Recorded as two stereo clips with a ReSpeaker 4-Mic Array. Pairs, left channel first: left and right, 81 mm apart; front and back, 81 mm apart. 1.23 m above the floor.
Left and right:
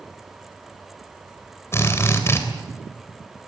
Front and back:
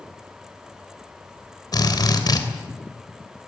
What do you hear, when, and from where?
1.7 s a drill: 35° left, 3 m